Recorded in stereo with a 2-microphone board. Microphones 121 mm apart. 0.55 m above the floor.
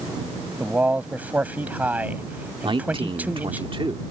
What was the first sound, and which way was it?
A man speaking, 15° right (ahead or behind).